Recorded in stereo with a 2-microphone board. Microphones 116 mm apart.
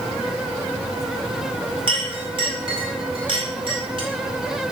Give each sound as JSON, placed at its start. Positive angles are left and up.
{"t": 1.9, "sound": "a clink", "side_deg": -45, "distance_m": 2.5}